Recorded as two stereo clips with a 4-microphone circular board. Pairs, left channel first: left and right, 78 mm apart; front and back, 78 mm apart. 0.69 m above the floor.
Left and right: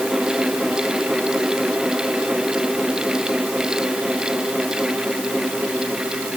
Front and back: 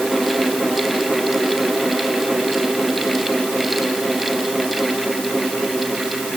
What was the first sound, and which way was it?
Only background noise.